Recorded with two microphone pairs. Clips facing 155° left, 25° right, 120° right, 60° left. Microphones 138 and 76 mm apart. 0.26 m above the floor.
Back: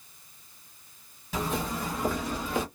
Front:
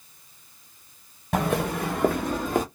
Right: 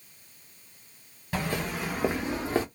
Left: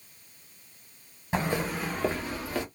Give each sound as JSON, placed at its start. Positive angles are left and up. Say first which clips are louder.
{"t": 1.3, "sound": "footsteps", "louder": "front 6 dB, left 2 dB", "azimuth_deg": -5, "distance_m": 1.1}